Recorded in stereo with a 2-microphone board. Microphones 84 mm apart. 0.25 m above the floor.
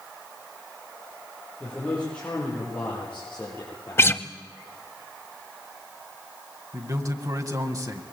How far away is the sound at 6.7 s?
About 1.7 m.